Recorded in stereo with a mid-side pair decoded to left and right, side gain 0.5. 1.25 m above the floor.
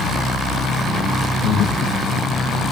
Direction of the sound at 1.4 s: 65° left.